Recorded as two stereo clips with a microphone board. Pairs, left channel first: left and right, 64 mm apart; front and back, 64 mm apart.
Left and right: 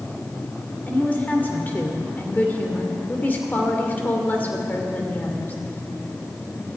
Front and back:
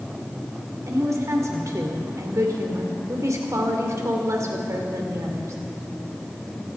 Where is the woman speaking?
150° left, 2.5 m.